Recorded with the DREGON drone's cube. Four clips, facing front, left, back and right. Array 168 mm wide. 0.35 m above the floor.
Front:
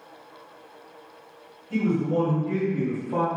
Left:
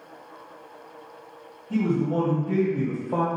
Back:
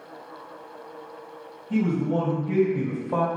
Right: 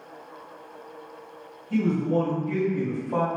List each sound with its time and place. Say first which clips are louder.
1.7 s a man speaking: even, even; 120° left, 1.9 m; by 3.3 s 160° left, 1.3 m